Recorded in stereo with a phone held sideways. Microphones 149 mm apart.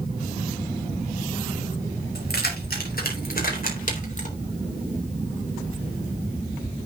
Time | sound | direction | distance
2.1 | keys jangling | 80° left | 5 m